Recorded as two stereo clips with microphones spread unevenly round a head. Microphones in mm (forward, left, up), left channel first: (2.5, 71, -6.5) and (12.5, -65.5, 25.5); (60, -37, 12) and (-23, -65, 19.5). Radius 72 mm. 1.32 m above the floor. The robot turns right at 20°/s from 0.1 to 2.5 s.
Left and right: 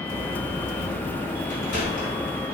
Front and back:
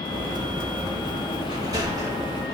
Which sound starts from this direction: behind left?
A sliding door, at 1.5 s.